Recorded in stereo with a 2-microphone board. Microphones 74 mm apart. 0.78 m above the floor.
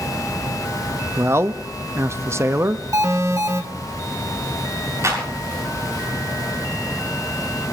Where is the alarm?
45° right (ahead or behind), 2.5 m.